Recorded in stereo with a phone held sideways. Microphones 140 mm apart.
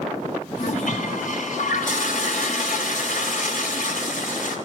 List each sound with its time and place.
0.6 s a toilet flushing: 70° left (ahead or behind), 3 m